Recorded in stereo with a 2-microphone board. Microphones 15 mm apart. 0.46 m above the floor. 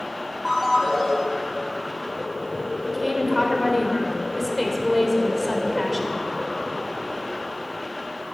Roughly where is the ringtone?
Centre.